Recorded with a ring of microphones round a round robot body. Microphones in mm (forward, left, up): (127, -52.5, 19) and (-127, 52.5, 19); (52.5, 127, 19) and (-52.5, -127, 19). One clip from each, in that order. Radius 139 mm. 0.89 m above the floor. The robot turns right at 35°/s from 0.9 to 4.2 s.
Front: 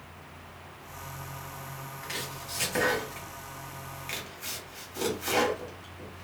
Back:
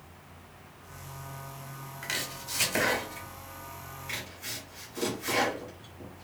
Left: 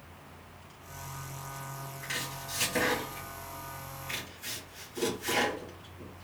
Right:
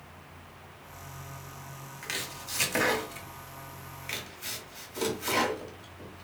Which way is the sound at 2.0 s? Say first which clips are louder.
Back 4 dB, right 1 dB; 150° right.